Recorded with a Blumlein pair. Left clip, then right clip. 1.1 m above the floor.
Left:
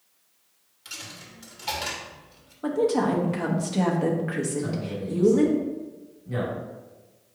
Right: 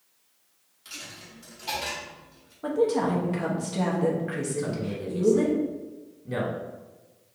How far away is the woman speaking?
About 1.0 m.